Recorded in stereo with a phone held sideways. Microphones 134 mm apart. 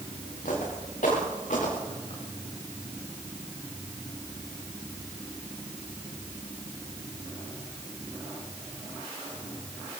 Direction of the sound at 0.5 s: 80° left.